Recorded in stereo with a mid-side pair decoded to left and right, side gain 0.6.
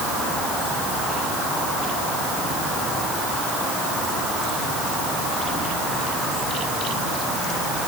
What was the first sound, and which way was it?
Only background noise.